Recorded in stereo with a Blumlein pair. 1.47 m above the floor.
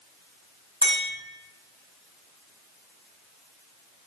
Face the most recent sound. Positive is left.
turn(degrees=-70)